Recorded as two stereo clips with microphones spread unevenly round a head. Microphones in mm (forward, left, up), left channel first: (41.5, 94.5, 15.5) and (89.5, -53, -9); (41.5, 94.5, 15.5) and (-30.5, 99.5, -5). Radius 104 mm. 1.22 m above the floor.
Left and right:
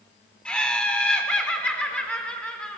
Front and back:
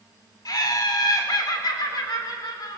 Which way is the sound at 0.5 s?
25° left.